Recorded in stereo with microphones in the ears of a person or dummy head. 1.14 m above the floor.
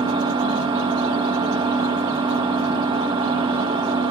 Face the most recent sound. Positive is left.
turn(degrees=-20)  # may be behind; listen again after turning